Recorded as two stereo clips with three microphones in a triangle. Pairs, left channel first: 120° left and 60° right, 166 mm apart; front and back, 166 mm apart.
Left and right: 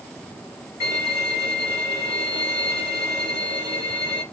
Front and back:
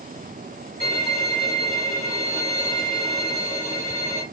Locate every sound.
0.8 s a violin: 135° right, 2.5 m